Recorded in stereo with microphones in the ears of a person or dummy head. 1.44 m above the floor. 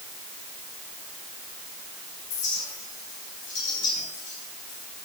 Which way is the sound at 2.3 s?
65° left (ahead or behind).